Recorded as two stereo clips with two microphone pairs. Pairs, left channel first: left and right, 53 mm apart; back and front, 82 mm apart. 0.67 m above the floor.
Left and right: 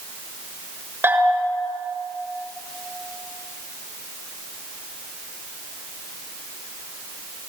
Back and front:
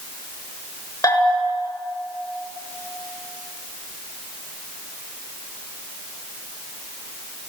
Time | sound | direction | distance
1.0 | a bell | 130° right | 7 m